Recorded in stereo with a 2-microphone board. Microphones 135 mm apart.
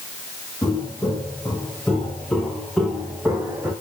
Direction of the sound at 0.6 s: 20° left (ahead or behind).